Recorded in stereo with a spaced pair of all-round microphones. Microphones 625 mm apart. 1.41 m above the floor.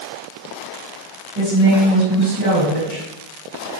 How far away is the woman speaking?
About 1.8 m.